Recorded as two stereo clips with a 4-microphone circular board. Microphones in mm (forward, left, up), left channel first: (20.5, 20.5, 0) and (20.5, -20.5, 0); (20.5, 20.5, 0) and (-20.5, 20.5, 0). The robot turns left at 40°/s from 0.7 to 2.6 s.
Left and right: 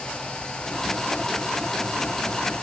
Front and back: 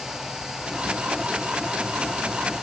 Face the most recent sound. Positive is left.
No sound to turn to.